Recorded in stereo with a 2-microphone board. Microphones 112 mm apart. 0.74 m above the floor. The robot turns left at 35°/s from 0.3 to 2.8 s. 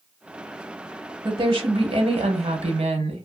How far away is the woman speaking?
About 0.9 m.